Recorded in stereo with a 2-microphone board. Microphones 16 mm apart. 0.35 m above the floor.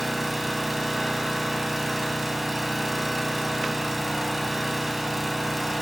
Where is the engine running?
10° right (ahead or behind), 1.3 m.